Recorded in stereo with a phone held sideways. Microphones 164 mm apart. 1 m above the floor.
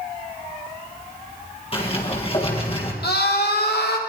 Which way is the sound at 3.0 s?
85° left.